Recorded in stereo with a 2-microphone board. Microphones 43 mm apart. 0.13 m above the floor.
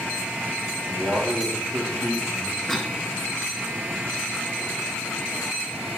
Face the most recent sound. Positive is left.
turn(degrees=0)  # may be behind; listen again after turning